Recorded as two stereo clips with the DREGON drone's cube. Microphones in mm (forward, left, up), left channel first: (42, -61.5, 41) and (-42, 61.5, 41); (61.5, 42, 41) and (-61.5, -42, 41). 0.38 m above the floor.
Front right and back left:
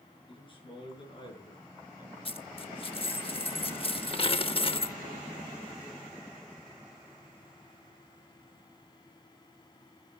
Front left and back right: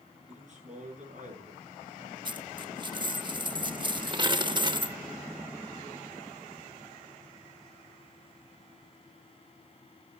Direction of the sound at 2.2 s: 95° right.